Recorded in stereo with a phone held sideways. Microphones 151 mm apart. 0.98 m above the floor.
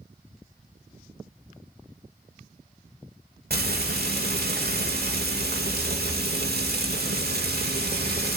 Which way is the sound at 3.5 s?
75° right (ahead or behind).